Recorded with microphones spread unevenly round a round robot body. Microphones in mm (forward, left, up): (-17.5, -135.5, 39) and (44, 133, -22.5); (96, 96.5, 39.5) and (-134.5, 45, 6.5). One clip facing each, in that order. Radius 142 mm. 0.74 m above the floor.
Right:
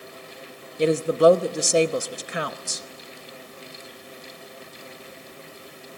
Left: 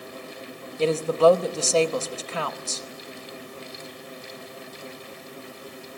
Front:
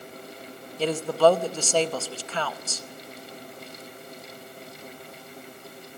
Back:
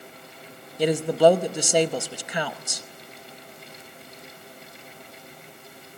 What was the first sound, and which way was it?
A woman speaking, 175° left.